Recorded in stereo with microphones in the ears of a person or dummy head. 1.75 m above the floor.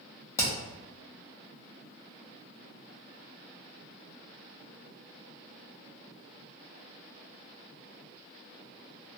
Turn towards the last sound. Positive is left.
turn(degrees=15)  # may be behind; listen again after turning